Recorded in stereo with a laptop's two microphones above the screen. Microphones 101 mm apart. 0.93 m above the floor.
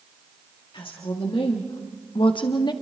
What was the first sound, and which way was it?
A woman speaking, 60° left (ahead or behind).